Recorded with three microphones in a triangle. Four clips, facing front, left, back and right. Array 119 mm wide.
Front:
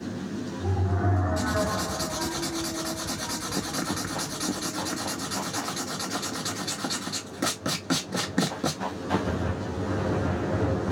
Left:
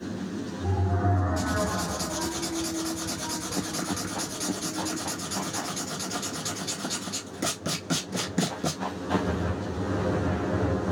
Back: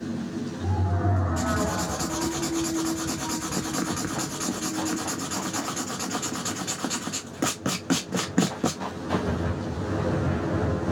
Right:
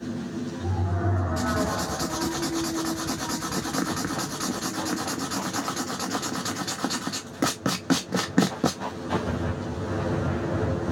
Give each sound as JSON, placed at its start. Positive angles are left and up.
{"t": 1.4, "sound": "writing", "azimuth_deg": -100, "distance_m": 0.8}